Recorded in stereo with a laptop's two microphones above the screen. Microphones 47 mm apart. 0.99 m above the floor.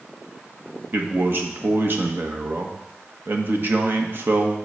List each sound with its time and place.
0.9 s a man speaking: 50° right (ahead or behind), 1.3 m